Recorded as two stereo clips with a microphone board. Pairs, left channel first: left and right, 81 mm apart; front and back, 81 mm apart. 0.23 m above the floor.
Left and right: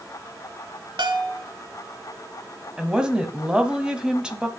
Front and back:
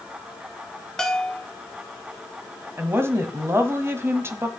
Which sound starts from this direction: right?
A bell, at 1.0 s.